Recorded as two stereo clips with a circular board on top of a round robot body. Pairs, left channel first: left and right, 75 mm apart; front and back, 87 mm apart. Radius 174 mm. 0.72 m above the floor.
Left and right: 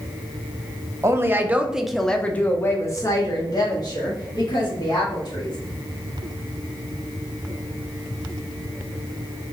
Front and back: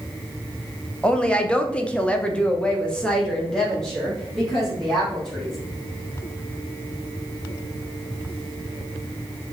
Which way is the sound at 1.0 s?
75° right.